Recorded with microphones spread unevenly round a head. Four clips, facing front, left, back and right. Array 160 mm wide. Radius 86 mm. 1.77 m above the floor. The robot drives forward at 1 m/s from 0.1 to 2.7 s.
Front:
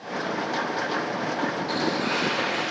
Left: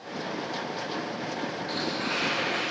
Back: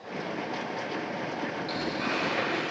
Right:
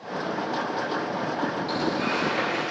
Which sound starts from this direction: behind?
Tearing paper, at 1.7 s.